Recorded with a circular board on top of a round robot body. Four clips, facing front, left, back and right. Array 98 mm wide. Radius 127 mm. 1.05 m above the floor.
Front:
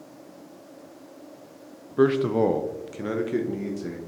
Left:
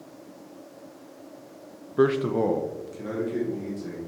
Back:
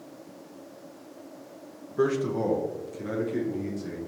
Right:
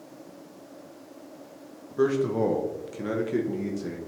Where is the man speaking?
55° left, 0.8 m; by 4.0 s 35° right, 1.9 m.